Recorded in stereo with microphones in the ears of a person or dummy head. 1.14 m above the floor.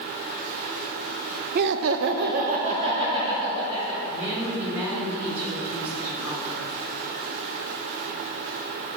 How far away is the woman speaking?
About 2 m.